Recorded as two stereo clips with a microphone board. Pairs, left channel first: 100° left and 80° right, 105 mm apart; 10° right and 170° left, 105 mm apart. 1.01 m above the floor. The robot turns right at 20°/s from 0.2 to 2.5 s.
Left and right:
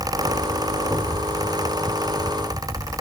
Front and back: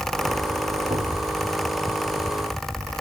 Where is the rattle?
I don't hear a rattle.